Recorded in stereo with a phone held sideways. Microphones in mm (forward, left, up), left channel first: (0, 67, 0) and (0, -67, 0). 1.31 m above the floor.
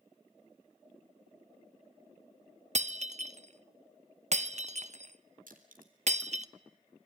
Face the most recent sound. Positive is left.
turn(degrees=-85)